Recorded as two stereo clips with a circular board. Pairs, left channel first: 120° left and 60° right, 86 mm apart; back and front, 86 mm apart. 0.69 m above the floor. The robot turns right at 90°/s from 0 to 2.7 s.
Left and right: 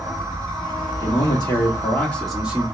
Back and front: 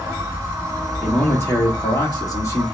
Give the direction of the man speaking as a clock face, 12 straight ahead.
9 o'clock.